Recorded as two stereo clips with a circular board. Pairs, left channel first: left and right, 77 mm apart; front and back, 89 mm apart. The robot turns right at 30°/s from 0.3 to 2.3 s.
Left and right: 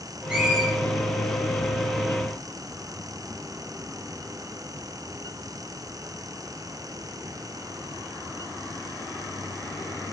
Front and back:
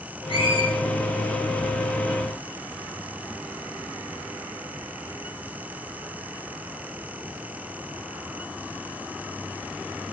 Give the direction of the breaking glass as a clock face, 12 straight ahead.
I don't hear breaking glass.